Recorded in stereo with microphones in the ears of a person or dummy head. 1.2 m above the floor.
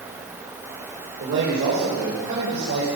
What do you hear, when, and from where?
1.2 s a man speaking: 65° right (ahead or behind), 4 m; by 2.9 s 60° right (ahead or behind), 5 m